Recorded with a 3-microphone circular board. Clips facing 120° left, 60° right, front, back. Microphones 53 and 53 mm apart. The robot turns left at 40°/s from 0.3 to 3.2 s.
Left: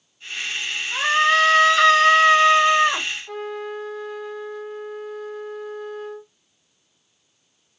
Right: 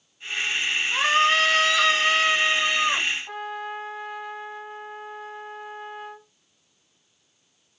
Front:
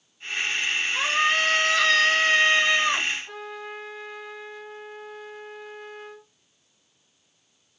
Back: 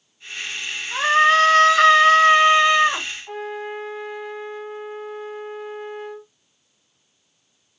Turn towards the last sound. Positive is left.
turn(degrees=-125)